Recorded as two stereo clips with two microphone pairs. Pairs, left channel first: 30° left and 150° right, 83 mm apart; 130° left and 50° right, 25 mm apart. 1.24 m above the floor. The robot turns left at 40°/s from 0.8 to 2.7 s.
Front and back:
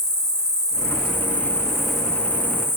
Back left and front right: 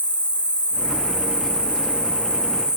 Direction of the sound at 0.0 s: 160° left.